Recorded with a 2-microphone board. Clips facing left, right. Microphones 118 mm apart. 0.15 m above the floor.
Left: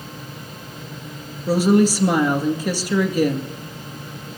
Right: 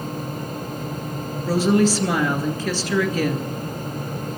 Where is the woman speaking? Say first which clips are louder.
Left 2 dB; 15° left (ahead or behind), 2 m.